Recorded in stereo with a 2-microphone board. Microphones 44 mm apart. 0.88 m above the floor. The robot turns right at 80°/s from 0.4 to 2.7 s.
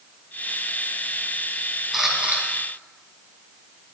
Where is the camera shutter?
175° right, 2.5 m; by 2.4 s 135° right, 2.5 m.